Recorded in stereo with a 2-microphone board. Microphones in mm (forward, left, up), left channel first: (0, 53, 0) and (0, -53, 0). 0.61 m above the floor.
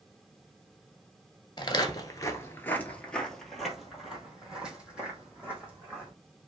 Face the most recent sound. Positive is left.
turn(degrees=-15)  # may be behind; listen again after turning